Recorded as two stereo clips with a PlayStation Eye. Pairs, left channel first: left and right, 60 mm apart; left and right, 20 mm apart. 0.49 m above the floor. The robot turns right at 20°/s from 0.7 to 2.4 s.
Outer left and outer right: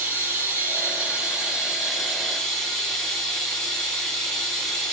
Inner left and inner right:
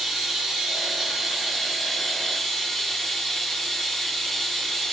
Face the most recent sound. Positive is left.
turn(degrees=5)